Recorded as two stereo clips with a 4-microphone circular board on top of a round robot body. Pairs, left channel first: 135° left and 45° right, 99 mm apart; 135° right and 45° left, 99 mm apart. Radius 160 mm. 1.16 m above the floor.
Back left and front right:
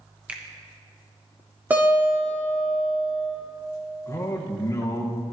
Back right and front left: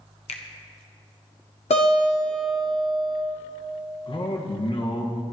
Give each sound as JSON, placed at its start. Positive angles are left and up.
{"t": 0.3, "sound": "a finger snap", "azimuth_deg": -120, "distance_m": 1.1}
{"t": 1.7, "sound": "a guitar", "azimuth_deg": -120, "distance_m": 1.4}
{"t": 4.1, "sound": "a man speaking", "azimuth_deg": -165, "distance_m": 1.5}